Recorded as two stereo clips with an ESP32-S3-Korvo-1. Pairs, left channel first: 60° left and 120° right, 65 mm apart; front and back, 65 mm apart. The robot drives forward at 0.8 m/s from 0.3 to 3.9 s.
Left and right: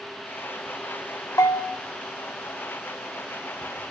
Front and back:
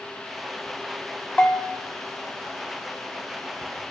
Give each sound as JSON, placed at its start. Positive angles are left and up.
{"t": 1.4, "sound": "a bell", "azimuth_deg": 70, "distance_m": 2.5}